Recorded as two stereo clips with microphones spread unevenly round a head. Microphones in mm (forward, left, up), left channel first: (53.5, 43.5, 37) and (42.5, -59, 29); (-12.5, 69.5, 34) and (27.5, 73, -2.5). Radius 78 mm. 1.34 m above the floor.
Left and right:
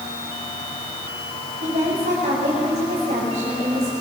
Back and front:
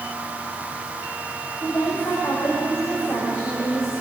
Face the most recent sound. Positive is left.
turn(degrees=-135)